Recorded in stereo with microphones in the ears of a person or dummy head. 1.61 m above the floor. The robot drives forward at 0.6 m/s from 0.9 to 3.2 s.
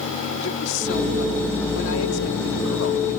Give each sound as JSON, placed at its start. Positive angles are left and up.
{"t": 0.4, "sound": "a woman speaking", "side_deg": 70}